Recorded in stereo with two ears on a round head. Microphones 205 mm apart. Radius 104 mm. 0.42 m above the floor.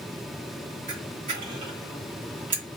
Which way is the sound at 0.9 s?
35° right (ahead or behind).